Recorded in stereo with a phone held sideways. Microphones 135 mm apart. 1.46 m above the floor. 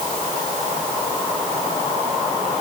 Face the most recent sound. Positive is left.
No sound to turn to.